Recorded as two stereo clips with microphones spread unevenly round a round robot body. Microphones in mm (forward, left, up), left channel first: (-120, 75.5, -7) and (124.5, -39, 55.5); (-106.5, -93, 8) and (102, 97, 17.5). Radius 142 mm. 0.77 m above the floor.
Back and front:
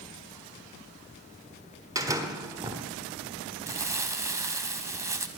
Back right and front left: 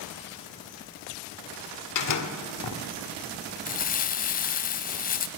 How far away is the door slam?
About 1.4 m.